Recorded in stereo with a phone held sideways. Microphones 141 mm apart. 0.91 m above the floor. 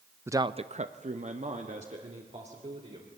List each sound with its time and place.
0.3 s a man speaking: 15° right (ahead or behind), 0.6 m; by 3.1 s 50° right (ahead or behind), 3.5 m